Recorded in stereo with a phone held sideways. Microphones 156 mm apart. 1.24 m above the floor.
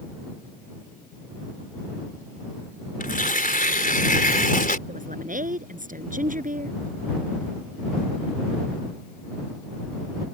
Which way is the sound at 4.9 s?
60° right (ahead or behind).